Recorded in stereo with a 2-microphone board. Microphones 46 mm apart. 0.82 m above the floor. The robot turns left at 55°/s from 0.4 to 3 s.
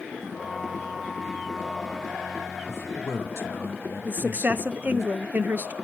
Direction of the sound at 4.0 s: 45° right (ahead or behind).